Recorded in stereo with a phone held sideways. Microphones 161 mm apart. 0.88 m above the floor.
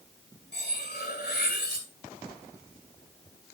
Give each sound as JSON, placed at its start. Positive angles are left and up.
{"t": 0.5, "sound": "cutlery clinking", "side_deg": 90, "distance_m": 2.5}